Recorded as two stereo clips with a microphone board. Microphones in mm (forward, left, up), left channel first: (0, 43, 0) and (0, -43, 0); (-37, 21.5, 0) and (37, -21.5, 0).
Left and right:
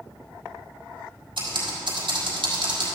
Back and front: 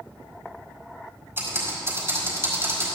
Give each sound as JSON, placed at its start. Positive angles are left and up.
{"t": 1.4, "sound": "typing on a keyboard", "azimuth_deg": -90, "distance_m": 4.0}